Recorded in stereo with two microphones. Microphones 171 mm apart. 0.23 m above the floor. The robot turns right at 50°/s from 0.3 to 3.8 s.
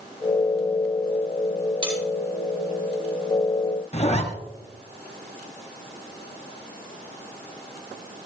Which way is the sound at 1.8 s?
30° right (ahead or behind).